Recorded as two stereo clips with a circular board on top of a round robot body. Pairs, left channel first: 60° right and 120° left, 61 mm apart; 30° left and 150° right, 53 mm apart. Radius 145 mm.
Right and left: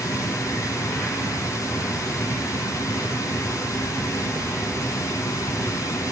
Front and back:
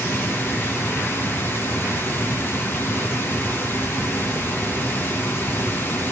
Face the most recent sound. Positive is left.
turn(degrees=-20)